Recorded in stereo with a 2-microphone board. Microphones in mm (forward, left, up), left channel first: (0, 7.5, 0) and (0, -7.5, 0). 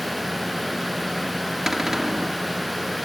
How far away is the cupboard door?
About 1.3 m.